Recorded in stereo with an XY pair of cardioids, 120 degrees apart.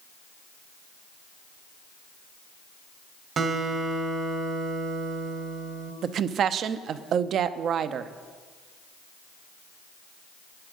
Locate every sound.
3.4 s a guitar: 45° right, 1.3 m
6.0 s a woman speaking: 55° right, 0.7 m